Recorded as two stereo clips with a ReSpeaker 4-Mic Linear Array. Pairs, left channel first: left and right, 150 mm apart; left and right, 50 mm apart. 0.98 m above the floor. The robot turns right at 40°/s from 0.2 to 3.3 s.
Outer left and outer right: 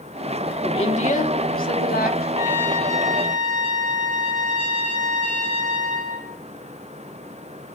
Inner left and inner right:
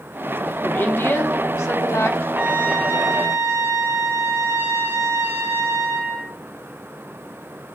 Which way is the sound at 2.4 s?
155° right.